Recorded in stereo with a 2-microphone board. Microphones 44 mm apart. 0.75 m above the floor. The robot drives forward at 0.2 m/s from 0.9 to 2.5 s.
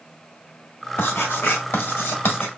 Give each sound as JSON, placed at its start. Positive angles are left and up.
{"t": 1.0, "sound": "writing", "side_deg": 60, "distance_m": 1.6}